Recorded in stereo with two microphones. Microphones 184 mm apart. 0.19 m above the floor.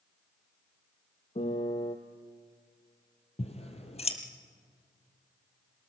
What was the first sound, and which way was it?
A piano, 40° left (ahead or behind).